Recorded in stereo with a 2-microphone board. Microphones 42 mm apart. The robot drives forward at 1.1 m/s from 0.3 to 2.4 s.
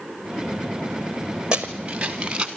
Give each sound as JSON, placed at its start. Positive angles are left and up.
{"t": 1.5, "sound": "running footsteps", "side_deg": -20, "distance_m": 1.5}